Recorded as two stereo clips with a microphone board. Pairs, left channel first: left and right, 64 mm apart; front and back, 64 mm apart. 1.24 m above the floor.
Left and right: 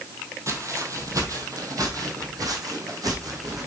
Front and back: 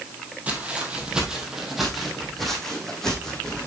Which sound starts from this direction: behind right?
Footsteps, at 0.5 s.